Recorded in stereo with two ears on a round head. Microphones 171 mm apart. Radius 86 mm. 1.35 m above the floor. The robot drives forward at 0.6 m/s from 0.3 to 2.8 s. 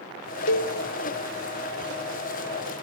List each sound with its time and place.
0.5 s a cowbell: 65° left (ahead or behind), 0.8 m; by 0.7 s 70° left (ahead or behind), 0.8 m